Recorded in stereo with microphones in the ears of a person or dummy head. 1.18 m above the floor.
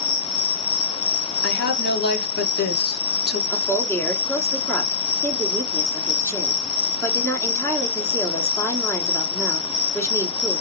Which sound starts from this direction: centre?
A woman speaking, at 3.5 s.